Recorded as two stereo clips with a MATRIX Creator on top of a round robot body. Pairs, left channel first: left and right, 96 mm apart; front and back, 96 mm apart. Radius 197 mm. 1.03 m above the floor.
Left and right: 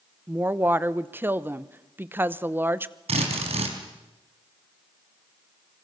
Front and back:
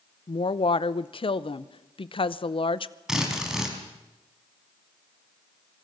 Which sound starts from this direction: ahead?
A woman speaking, at 0.3 s.